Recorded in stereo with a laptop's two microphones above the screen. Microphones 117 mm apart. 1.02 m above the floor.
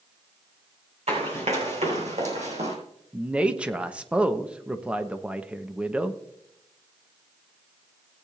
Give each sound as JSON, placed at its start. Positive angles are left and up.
{"t": 1.1, "sound": "running footsteps", "side_deg": -65, "distance_m": 4.5}
{"t": 3.1, "sound": "a man speaking", "side_deg": -10, "distance_m": 1.0}